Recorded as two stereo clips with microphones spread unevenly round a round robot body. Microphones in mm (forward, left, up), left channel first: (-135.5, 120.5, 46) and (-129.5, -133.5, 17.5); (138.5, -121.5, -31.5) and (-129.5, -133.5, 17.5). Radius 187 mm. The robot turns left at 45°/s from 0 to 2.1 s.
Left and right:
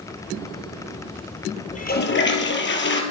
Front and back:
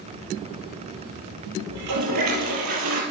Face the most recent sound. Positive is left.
turn(degrees=135)